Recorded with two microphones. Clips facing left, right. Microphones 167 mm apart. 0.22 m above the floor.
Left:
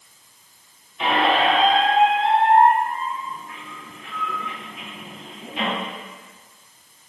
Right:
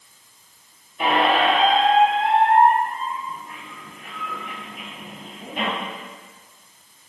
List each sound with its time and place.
1.0 s a squeak: 50° right (ahead or behind), 2 m